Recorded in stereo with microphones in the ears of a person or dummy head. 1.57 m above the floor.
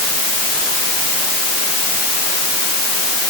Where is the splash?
I don't hear a splash.